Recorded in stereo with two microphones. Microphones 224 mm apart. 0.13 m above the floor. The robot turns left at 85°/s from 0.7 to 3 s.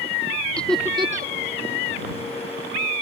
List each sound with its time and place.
0.6 s laughter: 5° left (ahead or behind); by 1.3 s 45° right (ahead or behind)